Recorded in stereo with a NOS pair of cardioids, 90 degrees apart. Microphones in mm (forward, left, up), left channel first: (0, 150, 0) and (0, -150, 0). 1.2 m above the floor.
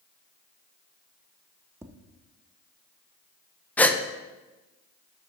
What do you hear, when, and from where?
1.8 s tapping: 10° right, 0.7 m
3.8 s a gasp: 5° left, 0.6 m